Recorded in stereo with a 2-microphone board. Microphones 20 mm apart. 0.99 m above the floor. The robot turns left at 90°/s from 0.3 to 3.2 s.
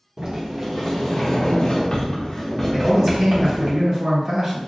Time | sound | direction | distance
0.2 | a sliding door | 135° right | 1.0 m
2.7 | a man speaking | 30° left | 1.9 m